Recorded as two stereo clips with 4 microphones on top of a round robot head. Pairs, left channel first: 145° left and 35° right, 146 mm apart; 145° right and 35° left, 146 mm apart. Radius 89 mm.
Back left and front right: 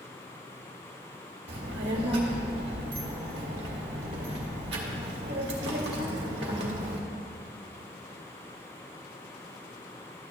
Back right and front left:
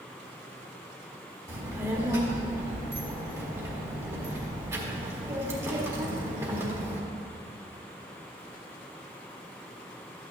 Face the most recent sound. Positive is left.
turn(degrees=-35)